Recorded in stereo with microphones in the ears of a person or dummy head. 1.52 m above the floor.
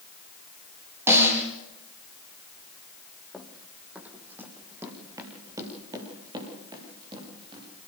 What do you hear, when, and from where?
1.1 s a snare drum: 15° right (ahead or behind), 8 m
3.3 s running footsteps: 5° left (ahead or behind), 3.5 m; by 7.7 s 30° right (ahead or behind), 9.5 m